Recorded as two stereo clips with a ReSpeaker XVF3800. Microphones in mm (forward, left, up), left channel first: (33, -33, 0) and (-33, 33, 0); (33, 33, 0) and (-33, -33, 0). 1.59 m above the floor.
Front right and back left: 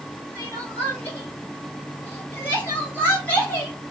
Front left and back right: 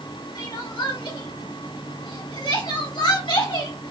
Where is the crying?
20° left, 3 m.